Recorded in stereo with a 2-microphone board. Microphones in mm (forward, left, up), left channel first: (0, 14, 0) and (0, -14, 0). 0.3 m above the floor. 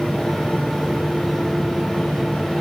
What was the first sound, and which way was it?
Only background noise.